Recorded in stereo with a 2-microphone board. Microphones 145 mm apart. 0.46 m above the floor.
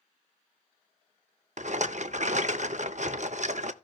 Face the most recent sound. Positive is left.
turn(degrees=-55)  # may be behind; listen again after turning